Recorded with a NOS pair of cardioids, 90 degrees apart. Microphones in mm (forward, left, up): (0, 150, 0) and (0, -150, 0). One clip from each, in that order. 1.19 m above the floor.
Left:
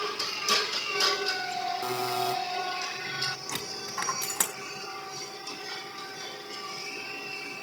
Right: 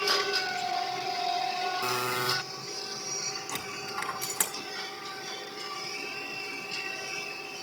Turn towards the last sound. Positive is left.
turn(degrees=20)